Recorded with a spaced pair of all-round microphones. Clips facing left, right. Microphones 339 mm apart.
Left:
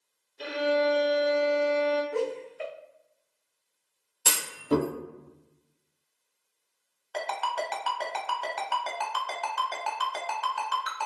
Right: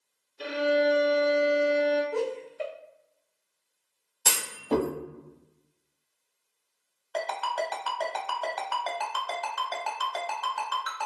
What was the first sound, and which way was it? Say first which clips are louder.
A violin: right 1 dB; 15° right (ahead or behind).